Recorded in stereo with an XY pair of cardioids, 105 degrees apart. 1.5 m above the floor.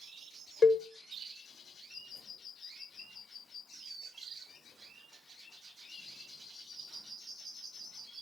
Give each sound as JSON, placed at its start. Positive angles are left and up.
{"t": 0.6, "sound": "a cowbell", "azimuth_deg": 55, "distance_m": 1.3}